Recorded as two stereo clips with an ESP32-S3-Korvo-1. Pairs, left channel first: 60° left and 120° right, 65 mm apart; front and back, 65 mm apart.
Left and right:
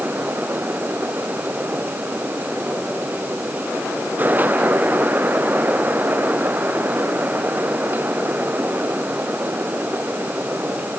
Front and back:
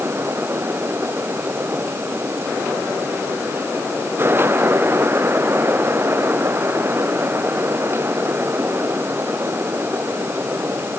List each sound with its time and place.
Only background noise.